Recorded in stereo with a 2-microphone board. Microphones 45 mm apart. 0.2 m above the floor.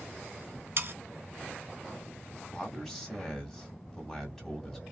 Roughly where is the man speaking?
Centre.